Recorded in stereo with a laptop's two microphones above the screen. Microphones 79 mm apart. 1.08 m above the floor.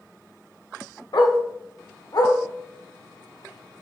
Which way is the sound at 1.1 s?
60° left (ahead or behind).